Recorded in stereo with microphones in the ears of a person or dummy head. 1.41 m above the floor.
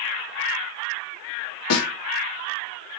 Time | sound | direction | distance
1.7 | a snare drum | 80° left | 1.7 m